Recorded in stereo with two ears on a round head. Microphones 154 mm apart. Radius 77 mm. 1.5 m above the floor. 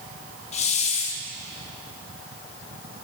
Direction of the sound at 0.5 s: 40° left (ahead or behind).